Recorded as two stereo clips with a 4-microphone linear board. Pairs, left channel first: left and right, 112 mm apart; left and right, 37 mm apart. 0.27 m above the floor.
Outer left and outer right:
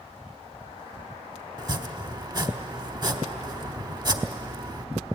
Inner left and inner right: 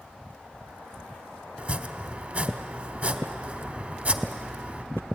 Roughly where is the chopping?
Right.